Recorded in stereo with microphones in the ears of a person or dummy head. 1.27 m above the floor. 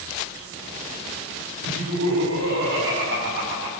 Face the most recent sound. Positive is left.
turn(degrees=-55)  # may be behind; listen again after turning